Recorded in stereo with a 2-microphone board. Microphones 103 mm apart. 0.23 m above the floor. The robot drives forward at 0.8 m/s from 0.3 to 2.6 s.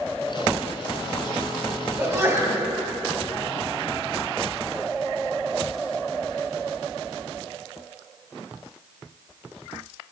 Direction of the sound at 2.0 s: 25° right (ahead or behind).